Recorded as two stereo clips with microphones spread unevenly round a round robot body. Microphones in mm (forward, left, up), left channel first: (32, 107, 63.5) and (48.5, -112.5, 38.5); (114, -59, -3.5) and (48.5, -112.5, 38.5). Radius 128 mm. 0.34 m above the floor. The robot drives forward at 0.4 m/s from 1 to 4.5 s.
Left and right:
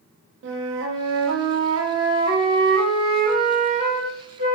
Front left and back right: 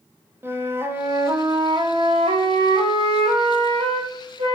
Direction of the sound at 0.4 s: 65° right.